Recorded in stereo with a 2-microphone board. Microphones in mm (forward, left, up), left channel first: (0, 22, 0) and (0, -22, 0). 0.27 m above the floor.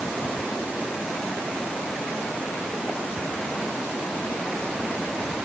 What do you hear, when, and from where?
Only background noise.